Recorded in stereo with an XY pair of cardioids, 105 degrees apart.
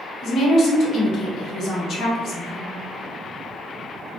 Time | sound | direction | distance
0.2 | a woman speaking | 60° left | 1.1 m